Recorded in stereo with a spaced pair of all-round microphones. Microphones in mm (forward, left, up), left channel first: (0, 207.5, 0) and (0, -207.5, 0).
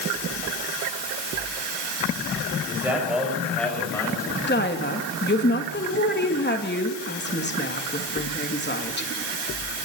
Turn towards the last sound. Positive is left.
turn(degrees=25)  # may be behind; listen again after turning